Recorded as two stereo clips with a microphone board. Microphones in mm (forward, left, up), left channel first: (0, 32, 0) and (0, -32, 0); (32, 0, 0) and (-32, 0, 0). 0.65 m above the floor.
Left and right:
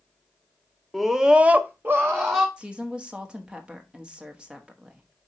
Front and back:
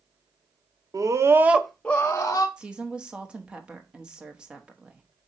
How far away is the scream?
About 1.1 m.